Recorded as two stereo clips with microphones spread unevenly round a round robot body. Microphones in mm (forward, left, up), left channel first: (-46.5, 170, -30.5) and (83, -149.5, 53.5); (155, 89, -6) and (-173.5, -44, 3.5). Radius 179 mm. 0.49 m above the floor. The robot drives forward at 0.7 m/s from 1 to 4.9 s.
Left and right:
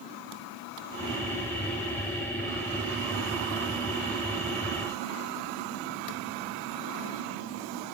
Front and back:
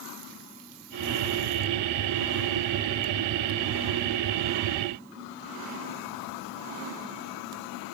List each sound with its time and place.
Only background noise.